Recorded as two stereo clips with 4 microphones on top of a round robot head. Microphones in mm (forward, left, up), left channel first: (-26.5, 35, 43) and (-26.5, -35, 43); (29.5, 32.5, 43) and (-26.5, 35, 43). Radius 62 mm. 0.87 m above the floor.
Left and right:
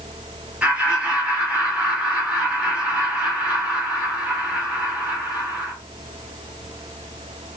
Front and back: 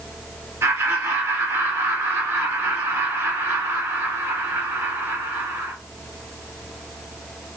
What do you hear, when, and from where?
0.6 s laughter: 160° right, 1.7 m